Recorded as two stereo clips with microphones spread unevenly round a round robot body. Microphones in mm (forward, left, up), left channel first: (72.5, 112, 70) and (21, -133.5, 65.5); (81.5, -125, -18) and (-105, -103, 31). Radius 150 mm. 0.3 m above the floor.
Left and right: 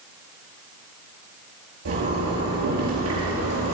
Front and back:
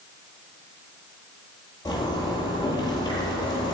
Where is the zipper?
75° right, 9 m.